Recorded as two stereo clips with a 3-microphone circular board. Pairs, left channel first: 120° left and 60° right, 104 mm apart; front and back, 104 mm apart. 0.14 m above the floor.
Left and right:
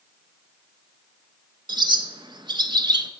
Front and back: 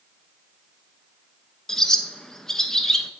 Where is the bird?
85° right, 0.5 m.